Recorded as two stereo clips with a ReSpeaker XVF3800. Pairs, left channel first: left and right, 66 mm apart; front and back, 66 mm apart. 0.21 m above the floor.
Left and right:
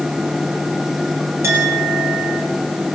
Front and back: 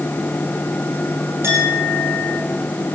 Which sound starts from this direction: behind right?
A clink, at 1.4 s.